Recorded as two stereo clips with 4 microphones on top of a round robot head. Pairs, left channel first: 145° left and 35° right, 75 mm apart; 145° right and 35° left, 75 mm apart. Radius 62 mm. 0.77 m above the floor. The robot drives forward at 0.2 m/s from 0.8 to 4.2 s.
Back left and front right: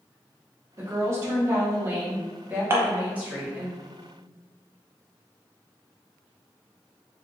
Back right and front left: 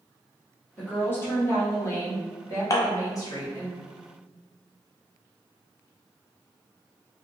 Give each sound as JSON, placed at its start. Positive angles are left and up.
{"t": 0.8, "sound": "a woman speaking", "azimuth_deg": -85, "distance_m": 1.4}
{"t": 2.7, "sound": "dishes clattering", "azimuth_deg": -95, "distance_m": 0.6}